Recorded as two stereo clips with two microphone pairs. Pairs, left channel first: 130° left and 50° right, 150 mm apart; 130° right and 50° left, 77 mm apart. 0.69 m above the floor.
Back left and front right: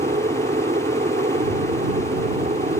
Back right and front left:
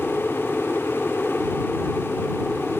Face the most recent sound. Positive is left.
turn(degrees=-45)